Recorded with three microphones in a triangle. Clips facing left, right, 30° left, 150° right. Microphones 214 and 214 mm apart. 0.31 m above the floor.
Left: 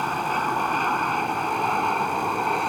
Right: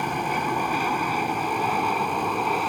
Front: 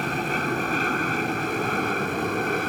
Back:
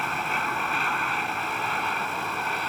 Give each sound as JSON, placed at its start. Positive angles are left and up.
{"t": 0.0, "sound": "an aircraft", "azimuth_deg": -15}